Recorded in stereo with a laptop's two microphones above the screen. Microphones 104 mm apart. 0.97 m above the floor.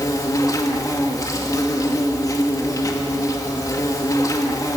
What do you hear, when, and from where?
0.0 s an insect: 35° left (ahead or behind), 2.5 m